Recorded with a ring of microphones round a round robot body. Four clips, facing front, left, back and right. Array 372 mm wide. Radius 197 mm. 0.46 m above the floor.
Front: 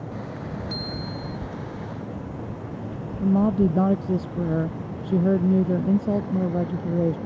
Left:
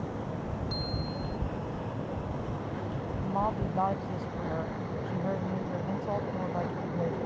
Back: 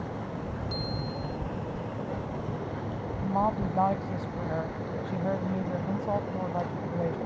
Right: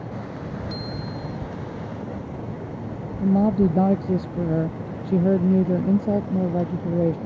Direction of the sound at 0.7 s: 45° right.